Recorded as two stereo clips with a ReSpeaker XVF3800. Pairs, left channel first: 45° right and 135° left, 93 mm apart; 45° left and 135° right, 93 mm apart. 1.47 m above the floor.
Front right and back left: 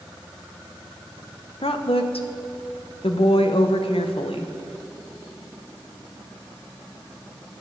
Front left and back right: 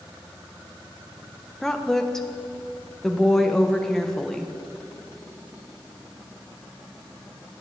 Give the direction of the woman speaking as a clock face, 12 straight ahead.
1 o'clock.